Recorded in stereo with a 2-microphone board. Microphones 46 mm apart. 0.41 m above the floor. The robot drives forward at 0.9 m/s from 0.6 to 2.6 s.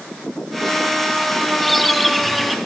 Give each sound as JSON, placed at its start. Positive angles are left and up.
{"t": 1.6, "sound": "a bird", "side_deg": 5, "distance_m": 1.3}